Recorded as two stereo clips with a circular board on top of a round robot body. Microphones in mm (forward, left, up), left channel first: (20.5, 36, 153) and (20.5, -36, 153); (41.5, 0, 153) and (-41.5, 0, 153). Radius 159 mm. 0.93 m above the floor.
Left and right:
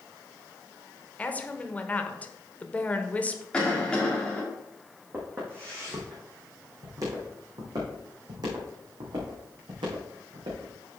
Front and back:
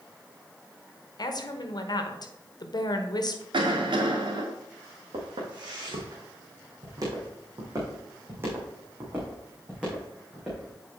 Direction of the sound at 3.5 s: 165° left.